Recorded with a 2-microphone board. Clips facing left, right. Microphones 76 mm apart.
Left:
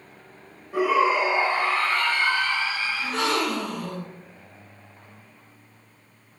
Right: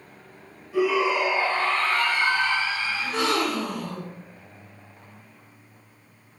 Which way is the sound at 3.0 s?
5° right (ahead or behind).